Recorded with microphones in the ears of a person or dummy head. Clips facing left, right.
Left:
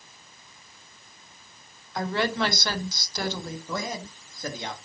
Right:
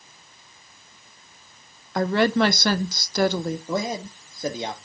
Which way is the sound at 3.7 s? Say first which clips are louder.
Right 6 dB; 25° right (ahead or behind).